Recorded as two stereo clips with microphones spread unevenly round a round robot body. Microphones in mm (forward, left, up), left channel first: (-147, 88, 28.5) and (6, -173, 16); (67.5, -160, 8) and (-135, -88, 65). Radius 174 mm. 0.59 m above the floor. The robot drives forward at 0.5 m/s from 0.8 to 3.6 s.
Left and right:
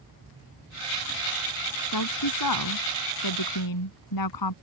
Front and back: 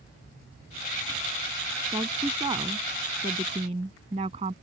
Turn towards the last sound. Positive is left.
turn(degrees=90)